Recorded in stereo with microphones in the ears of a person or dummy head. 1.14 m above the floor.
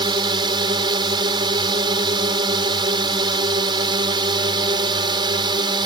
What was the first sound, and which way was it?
A drone, 25° right (ahead or behind).